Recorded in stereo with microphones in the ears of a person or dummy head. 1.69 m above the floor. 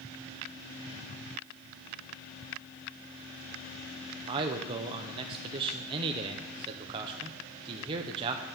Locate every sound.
4.3 s a man speaking: 30° right (ahead or behind), 0.8 m